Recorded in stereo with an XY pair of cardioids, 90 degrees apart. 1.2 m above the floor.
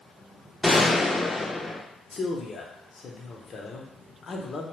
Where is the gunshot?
15° left, 0.6 m.